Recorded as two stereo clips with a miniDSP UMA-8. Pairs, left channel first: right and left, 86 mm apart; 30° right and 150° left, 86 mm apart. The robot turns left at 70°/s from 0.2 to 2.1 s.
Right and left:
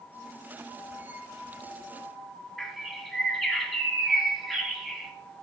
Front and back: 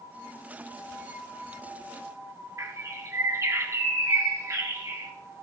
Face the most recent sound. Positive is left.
turn(degrees=180)